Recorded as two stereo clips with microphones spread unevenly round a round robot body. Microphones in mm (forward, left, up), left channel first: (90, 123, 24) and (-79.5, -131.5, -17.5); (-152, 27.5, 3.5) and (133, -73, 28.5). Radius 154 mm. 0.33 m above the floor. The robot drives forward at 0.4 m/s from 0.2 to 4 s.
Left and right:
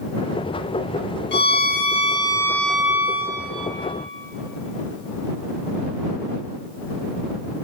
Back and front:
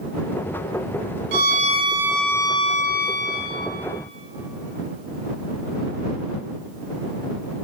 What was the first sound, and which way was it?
A violin, 15° left.